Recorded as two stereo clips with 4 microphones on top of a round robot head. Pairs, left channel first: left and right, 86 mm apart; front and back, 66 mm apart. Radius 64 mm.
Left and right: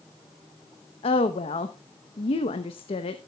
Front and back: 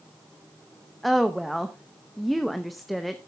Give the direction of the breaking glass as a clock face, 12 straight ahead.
No breaking glass in this recording.